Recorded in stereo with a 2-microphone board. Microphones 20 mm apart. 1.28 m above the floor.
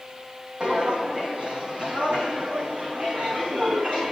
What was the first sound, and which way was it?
Footsteps, 55° right (ahead or behind).